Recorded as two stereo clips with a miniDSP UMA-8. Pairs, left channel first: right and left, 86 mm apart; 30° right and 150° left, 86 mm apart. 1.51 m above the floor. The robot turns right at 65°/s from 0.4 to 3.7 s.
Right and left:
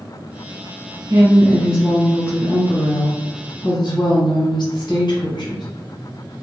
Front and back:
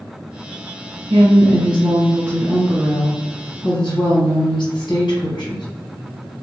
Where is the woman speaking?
135° left, 1.3 m; by 5.7 s 55° right, 1.3 m.